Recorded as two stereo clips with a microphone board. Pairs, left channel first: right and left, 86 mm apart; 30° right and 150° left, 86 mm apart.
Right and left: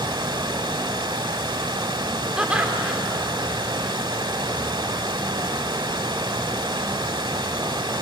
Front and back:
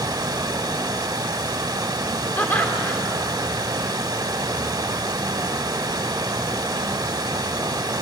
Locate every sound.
0.0 s running water: 115° left, 0.9 m
2.4 s laughter: 20° left, 1.4 m